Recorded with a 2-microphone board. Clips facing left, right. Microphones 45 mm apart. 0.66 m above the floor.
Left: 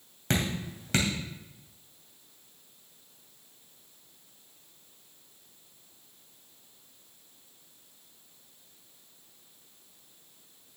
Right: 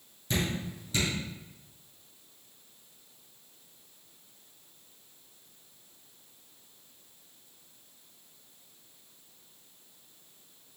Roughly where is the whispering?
No whispering in this recording.